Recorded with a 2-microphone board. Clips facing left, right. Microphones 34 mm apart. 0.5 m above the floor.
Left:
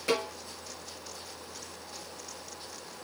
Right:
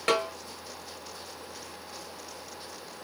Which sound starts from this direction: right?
A snare drum, at 0.1 s.